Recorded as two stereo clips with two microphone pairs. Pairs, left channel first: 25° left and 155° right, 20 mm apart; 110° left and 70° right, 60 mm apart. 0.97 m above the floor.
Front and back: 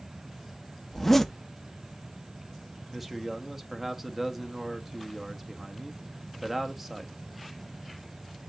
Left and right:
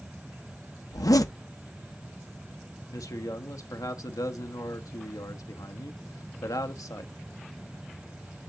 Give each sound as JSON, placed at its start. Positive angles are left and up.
{"t": 0.9, "sound": "a zipper", "azimuth_deg": 110, "distance_m": 0.6}
{"t": 2.9, "sound": "a man speaking", "azimuth_deg": 130, "distance_m": 1.1}